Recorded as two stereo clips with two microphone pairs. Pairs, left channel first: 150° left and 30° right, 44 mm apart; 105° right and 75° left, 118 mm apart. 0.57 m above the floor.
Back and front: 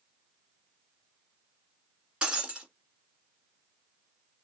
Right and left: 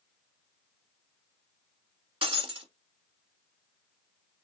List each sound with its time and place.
2.2 s breaking glass: 40° left, 1.4 m